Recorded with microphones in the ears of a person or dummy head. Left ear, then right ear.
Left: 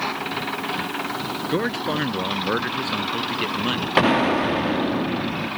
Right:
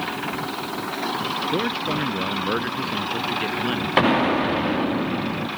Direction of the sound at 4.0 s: 5° left (ahead or behind).